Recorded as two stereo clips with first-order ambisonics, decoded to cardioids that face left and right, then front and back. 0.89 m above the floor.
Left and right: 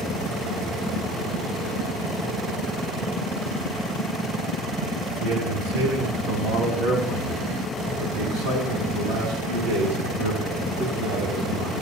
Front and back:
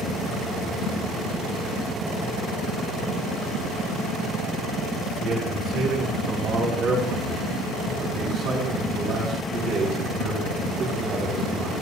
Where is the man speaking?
130° right, 5.5 m.